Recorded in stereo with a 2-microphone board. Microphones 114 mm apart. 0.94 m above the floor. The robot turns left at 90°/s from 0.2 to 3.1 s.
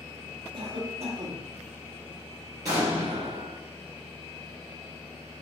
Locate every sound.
0.5 s a cough: 60° right, 1.6 m; by 1.5 s 145° right, 1.6 m
2.6 s an explosion: 30° right, 2 m; by 3.5 s 70° right, 2 m